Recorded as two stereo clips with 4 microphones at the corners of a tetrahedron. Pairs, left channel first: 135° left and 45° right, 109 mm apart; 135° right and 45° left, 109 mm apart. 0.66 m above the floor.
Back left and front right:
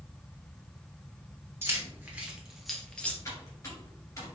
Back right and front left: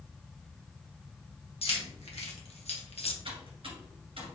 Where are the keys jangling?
110° right, 1.3 m; by 3.1 s 150° right, 0.8 m.